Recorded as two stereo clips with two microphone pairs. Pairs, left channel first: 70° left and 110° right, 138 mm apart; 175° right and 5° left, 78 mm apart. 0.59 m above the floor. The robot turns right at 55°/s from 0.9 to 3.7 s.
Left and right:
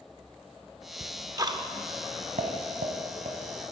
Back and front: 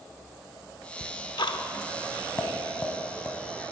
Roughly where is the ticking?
Behind.